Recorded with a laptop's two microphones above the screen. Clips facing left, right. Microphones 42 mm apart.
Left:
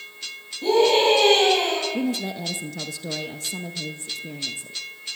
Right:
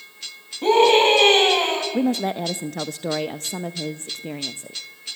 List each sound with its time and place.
0.6 s a scream: 60° right (ahead or behind), 9 m
1.9 s a woman speaking: 55° right (ahead or behind), 0.6 m